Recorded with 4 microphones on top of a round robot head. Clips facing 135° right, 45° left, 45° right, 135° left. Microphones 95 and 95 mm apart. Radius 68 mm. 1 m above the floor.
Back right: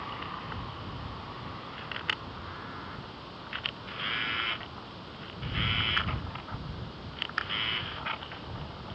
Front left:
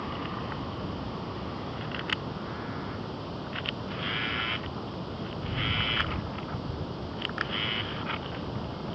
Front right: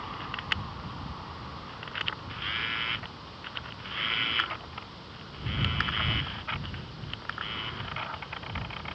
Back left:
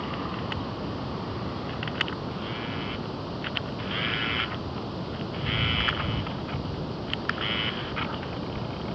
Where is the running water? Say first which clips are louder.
Front left 4 dB, back left 6 dB; 100° left.